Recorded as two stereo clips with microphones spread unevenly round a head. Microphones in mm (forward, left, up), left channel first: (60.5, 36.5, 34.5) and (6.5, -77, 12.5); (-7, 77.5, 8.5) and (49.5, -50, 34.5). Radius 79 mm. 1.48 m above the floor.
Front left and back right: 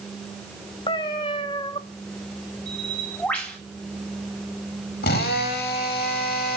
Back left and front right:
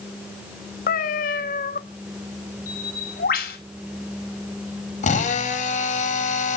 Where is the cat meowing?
100° left, 1.1 m.